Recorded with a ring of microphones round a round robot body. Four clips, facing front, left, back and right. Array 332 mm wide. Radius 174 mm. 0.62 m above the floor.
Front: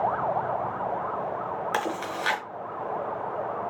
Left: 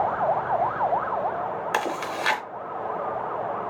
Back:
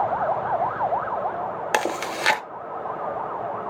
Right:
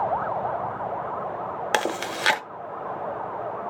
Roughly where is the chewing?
Behind right.